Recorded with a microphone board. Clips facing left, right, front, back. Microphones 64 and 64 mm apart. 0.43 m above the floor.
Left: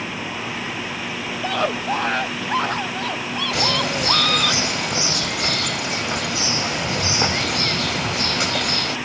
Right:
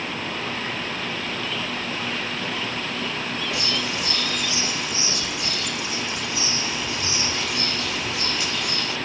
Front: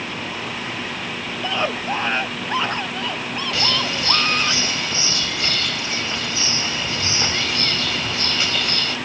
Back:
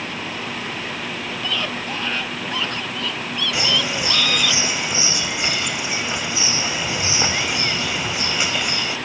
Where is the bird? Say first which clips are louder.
Left 5 dB, back 1 dB; 110° left.